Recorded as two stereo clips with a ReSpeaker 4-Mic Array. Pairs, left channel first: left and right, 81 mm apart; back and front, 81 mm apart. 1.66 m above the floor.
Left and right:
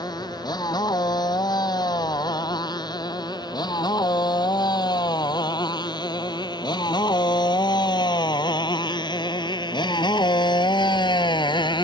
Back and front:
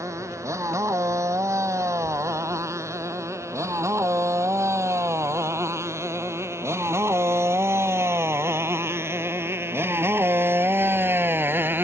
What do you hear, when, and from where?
0.0 s a motorcycle: 55° left; by 11.8 s 65° left